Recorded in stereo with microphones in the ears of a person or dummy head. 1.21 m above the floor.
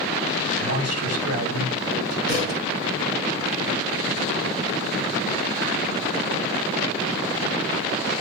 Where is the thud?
60° right (ahead or behind), 7.5 m.